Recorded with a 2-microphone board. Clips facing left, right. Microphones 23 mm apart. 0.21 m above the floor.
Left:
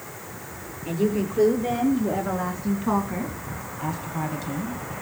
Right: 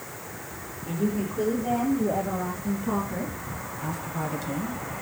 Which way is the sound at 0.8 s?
70° left (ahead or behind).